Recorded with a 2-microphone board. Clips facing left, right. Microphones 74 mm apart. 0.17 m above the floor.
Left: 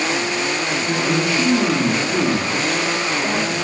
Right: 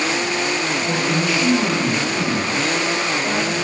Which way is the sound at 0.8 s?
65° left (ahead or behind).